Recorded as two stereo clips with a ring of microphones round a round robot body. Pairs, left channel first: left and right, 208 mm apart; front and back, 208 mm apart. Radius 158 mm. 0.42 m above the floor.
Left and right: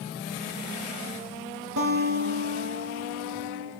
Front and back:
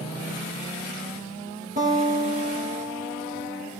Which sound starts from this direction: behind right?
A guitar, at 1.8 s.